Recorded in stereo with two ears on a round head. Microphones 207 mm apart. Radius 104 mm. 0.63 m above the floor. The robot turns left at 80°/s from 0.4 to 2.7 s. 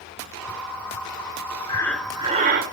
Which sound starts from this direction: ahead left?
Breathing, at 1.7 s.